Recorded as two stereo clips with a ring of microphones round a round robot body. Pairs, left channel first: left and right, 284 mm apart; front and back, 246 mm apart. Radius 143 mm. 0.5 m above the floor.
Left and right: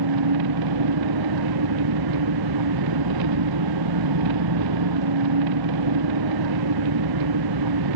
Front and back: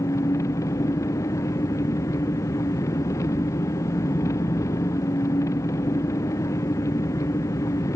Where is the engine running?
80° right.